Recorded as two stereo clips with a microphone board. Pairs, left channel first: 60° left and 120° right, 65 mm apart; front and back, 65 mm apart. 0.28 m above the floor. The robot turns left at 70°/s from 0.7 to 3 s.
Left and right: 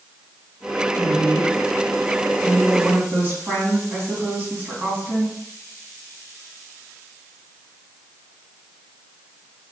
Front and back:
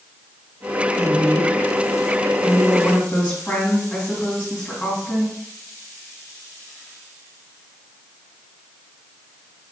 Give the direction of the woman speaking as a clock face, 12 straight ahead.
10 o'clock.